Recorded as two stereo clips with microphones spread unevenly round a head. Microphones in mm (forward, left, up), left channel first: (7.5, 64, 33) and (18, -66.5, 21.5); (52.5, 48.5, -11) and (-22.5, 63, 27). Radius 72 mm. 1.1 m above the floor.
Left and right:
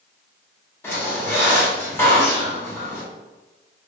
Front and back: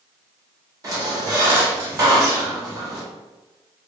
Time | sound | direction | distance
0.8 | a squeak | 165° left | 0.8 m